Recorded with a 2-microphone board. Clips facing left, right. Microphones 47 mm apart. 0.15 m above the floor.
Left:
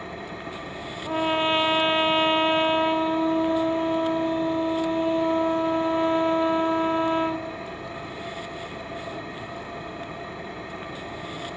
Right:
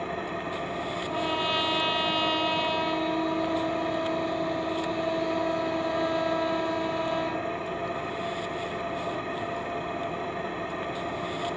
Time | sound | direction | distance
0.0 | an engine running | 35° right (ahead or behind) | 3.5 m
1.1 | a trumpet | 35° left (ahead or behind) | 0.7 m